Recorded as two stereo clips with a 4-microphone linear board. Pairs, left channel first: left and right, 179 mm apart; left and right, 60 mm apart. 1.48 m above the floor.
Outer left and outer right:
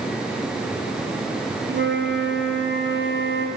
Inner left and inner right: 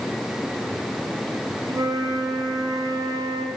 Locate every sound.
1.7 s a flute: 75° right (ahead or behind), 0.7 m